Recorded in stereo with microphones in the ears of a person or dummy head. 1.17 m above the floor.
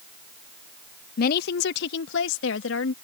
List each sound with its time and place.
1.2 s a woman speaking: 60° left (ahead or behind); by 2.9 s 85° left